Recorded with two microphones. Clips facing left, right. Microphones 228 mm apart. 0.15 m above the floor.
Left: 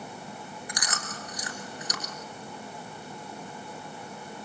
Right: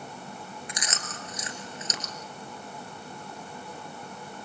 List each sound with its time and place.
0.7 s chewing: 25° right (ahead or behind), 2 m